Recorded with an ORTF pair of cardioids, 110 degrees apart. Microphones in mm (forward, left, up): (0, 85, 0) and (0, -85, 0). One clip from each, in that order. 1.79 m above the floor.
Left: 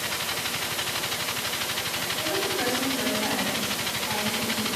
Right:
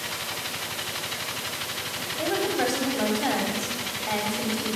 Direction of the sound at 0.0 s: 20° left.